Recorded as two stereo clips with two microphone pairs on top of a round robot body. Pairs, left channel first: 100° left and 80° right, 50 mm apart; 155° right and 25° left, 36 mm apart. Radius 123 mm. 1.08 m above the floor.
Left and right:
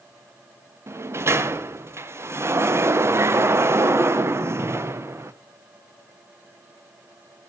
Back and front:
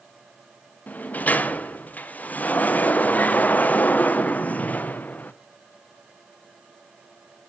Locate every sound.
0.9 s a sliding door: 105° right, 1.1 m